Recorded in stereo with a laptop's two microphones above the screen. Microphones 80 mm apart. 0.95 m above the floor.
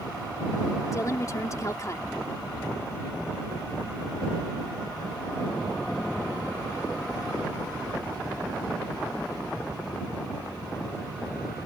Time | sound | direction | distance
0.9 | a woman speaking | 40° left (ahead or behind) | ?